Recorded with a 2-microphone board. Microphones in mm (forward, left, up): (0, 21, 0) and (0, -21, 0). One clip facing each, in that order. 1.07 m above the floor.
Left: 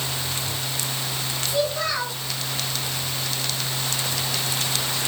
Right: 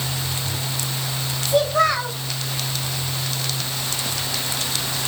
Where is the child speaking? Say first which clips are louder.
Right 7 dB; 75° right (ahead or behind), 2.5 m.